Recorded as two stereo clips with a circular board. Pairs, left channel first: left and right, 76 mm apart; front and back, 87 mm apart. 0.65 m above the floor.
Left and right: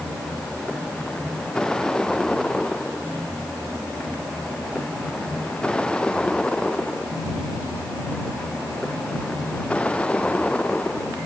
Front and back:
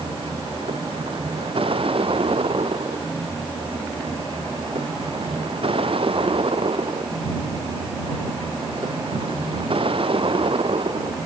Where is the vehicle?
175° left; by 11.3 s 165° left.